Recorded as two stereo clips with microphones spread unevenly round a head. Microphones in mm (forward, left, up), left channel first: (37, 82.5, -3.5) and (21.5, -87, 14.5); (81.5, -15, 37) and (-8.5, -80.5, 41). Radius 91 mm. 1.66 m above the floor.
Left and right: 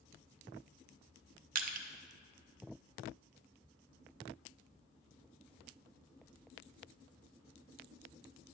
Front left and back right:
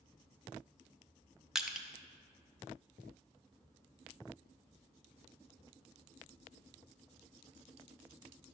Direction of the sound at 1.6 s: 60° right.